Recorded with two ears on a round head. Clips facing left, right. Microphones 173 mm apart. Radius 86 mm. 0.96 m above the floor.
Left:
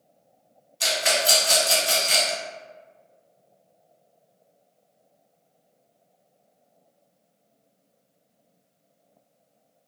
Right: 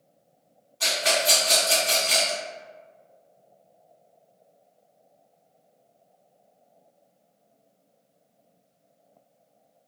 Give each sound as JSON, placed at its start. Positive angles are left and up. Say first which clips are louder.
{"t": 0.8, "sound": "a rattle", "louder": "even", "side_deg": 25, "distance_m": 1.4}